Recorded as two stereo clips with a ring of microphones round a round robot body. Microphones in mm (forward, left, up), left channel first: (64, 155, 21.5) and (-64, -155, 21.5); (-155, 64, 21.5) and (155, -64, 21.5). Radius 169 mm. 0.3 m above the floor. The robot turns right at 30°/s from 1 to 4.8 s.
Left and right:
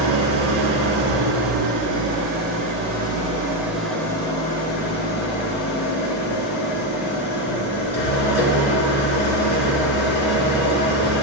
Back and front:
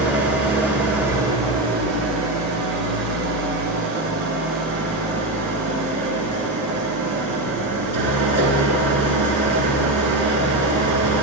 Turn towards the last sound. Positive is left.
turn(degrees=5)